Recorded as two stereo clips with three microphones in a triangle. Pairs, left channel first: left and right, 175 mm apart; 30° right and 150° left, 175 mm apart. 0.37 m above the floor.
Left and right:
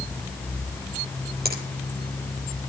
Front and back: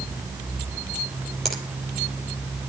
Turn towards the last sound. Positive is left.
turn(degrees=-120)